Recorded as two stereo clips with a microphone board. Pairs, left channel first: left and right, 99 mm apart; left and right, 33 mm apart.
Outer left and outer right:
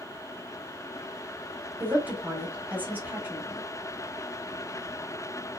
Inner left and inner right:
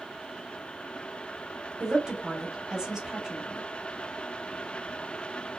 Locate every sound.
1.8 s a woman speaking: 20° right (ahead or behind), 0.9 m